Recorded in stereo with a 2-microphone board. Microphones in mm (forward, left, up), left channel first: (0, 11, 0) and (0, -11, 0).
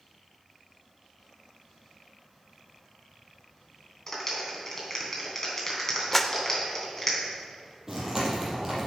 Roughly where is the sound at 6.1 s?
Centre.